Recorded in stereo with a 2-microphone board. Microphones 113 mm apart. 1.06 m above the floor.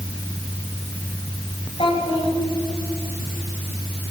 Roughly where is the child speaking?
Left.